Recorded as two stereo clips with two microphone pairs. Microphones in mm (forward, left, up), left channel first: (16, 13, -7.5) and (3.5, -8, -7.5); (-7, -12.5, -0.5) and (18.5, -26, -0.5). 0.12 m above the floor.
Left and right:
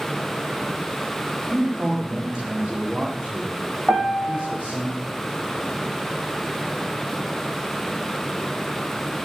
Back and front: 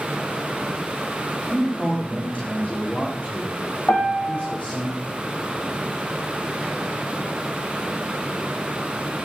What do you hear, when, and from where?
1.5 s a man speaking: 175° right, 6.5 m; by 4.9 s 155° right, 9 m
3.9 s a piano: 175° right, 4.5 m